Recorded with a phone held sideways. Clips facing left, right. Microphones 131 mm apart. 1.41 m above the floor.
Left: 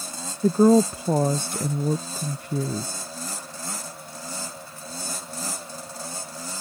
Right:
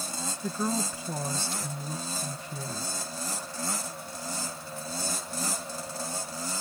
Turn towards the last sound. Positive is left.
turn(degrees=55)  # may be behind; listen again after turning